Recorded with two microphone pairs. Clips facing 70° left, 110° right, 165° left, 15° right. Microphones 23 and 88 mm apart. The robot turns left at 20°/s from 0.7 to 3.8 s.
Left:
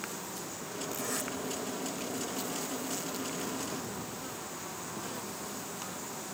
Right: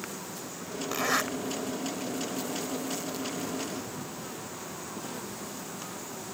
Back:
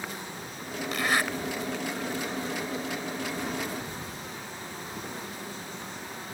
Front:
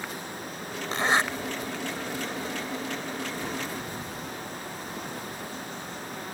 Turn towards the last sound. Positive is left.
turn(degrees=-130)